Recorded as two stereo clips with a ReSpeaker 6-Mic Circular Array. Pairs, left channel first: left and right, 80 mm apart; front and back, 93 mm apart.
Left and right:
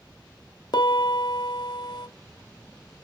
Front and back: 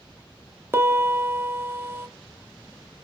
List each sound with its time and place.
0.7 s a piano: 115° left, 0.6 m